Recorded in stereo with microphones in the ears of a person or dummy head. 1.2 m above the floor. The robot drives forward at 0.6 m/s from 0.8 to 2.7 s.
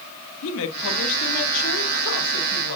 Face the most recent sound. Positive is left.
turn(degrees=55)  # may be behind; listen again after turning